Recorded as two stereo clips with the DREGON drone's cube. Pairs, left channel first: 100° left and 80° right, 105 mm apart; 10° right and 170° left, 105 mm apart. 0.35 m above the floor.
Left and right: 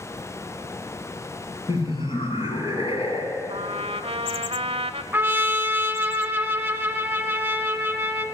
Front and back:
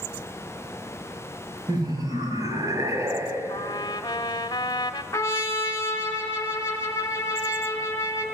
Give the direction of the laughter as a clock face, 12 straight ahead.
8 o'clock.